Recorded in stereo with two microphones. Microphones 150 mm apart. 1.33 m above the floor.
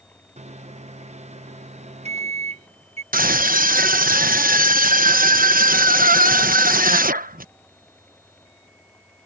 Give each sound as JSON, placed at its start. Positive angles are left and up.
{"t": 0.4, "sound": "a microwave", "side_deg": -50}
{"t": 3.1, "sound": "a scream", "side_deg": -75}